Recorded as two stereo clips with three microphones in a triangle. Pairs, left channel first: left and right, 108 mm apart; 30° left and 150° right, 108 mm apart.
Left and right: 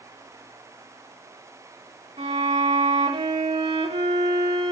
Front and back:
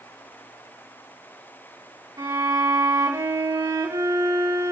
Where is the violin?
95° right, 4 m.